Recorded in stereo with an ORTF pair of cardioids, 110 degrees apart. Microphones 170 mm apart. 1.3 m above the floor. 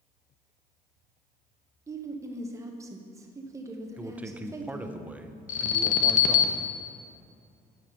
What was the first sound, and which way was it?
A woman speaking, 20° right.